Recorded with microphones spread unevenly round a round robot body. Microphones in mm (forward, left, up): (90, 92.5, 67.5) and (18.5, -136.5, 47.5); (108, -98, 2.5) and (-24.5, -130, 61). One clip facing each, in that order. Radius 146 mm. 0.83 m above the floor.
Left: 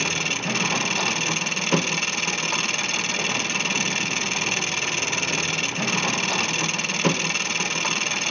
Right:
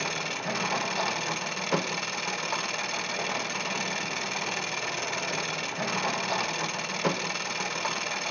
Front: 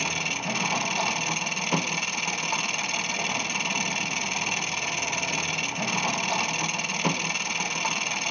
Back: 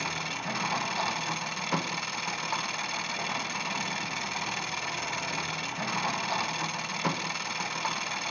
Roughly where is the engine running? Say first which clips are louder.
Left 5 dB, front 3 dB; ahead left.